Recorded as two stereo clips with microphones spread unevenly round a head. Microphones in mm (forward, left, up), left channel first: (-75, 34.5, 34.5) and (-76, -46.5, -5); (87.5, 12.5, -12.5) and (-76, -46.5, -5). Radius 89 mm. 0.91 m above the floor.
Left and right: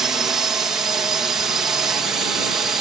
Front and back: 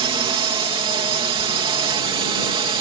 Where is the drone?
120° right.